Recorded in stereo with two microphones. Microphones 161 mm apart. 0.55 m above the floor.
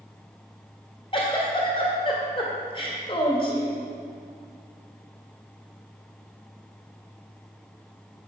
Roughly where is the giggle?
Left.